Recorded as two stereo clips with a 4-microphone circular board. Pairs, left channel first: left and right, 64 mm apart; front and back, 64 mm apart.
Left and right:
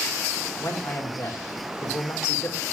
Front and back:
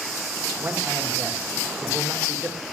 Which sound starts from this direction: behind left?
A man speaking, at 0.6 s.